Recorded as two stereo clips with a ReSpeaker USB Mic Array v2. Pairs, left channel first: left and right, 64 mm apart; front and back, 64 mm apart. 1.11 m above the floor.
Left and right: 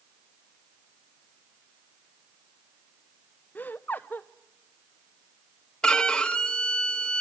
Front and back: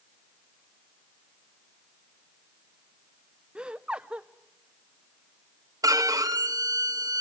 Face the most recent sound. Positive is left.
turn(degrees=165)